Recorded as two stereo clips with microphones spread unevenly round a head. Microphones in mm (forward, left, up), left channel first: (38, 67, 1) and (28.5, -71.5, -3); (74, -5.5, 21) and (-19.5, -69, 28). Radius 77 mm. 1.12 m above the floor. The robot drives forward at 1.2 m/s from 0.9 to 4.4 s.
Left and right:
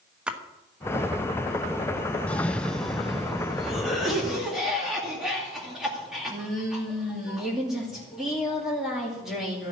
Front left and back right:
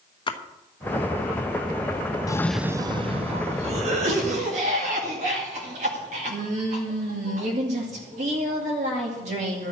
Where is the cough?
10° left, 0.6 m; by 9.7 s straight behind, 2.5 m.